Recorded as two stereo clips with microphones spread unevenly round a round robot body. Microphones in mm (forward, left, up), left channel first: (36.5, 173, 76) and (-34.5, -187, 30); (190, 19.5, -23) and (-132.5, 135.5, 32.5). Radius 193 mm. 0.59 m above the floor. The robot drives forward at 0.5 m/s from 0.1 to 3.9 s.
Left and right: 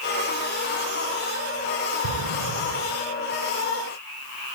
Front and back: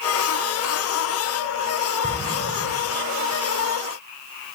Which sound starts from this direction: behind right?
An explosion, at 2.0 s.